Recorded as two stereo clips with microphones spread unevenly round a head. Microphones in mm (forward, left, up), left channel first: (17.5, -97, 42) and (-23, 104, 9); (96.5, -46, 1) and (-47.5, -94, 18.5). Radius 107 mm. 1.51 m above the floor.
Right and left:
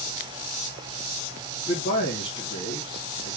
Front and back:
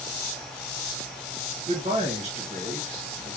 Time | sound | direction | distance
1.7 | a man speaking | 120° right | 2 m